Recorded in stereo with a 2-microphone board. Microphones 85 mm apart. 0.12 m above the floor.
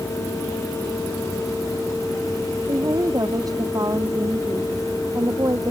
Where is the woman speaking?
50° right (ahead or behind).